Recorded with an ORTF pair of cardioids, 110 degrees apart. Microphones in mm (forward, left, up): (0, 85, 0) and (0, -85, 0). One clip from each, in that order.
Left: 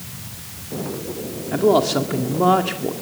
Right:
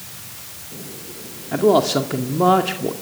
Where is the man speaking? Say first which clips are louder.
Right 1 dB; 5° right, 2 m.